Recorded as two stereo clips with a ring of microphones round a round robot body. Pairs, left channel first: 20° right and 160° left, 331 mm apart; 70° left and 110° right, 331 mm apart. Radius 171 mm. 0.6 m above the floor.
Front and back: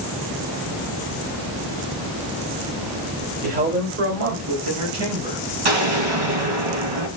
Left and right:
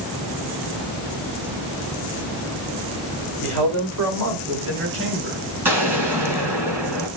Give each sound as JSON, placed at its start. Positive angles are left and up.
{"t": 3.4, "sound": "a man speaking", "azimuth_deg": -135, "distance_m": 3.0}
{"t": 5.7, "sound": "an explosion", "azimuth_deg": 165, "distance_m": 4.5}